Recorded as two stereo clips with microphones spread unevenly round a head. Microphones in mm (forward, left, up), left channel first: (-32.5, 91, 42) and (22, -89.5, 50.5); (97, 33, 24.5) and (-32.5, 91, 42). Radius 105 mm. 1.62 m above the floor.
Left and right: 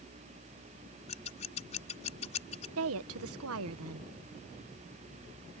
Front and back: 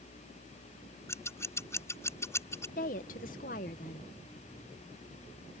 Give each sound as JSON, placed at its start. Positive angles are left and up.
{"t": 1.1, "sound": "scissors", "azimuth_deg": 50}
{"t": 2.8, "sound": "a woman speaking", "azimuth_deg": -70}